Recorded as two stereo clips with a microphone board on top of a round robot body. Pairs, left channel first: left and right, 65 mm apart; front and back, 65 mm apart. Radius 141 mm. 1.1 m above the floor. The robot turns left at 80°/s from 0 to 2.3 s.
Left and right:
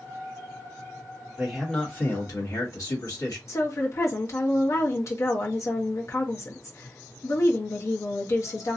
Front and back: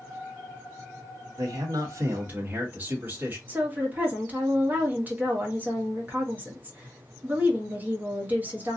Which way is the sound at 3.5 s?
120° left.